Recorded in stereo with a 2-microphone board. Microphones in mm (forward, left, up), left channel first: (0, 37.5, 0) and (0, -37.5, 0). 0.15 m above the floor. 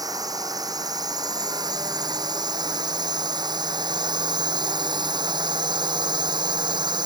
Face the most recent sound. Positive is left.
turn(degrees=-80)